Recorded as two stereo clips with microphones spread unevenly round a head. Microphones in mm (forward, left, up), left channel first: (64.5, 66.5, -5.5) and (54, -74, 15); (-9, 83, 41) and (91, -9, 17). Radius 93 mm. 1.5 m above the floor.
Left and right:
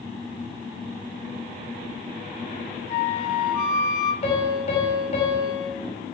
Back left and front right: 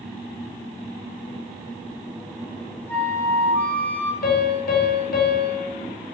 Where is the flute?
60° left, 2.5 m.